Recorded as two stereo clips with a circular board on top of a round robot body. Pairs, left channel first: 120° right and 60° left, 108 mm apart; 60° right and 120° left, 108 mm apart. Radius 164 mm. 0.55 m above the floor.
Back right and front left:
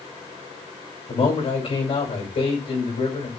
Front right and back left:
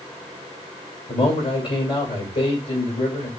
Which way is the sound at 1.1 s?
100° right.